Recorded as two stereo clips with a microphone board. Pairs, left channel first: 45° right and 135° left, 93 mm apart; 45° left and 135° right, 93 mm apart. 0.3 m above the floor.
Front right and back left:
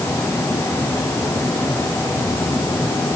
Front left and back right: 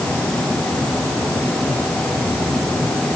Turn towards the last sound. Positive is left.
No sound to turn to.